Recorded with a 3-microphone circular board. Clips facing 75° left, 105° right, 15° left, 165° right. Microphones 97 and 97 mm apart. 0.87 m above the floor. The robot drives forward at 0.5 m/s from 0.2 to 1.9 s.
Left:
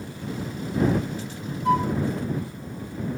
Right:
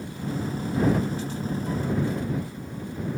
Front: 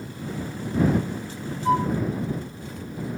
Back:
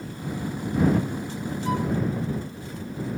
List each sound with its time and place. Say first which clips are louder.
1.6 s a flute: left 10 dB, front 5 dB; 70° left